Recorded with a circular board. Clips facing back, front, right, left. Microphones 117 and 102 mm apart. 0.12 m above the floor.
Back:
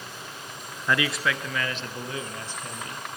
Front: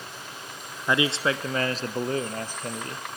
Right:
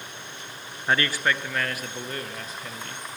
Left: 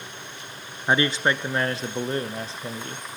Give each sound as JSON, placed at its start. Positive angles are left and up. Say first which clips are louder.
{"t": 0.9, "sound": "a man speaking", "louder": "front 2 dB, left 3 dB", "azimuth_deg": 40, "distance_m": 1.2}